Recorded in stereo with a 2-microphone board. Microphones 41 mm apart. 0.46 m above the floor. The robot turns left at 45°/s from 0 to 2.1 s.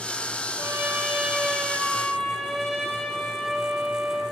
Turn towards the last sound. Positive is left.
turn(degrees=175)